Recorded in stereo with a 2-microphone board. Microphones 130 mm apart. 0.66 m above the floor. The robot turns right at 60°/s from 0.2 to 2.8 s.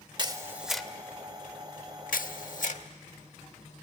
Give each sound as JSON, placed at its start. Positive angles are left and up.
{"t": 0.2, "sound": "a camera shutter", "side_deg": -30, "distance_m": 0.8}